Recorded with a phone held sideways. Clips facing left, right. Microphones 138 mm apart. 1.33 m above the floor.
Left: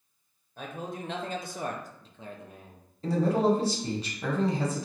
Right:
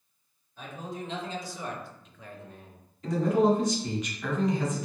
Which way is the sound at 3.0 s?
30° left (ahead or behind).